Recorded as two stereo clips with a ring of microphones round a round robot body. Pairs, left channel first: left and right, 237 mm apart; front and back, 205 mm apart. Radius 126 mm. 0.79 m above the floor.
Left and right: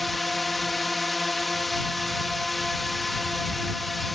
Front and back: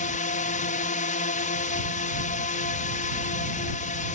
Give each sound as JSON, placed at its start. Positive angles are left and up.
{"t": 0.0, "sound": "a drone", "azimuth_deg": 0}